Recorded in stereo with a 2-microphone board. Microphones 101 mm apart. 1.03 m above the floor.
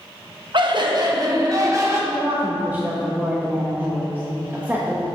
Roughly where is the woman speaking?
Right.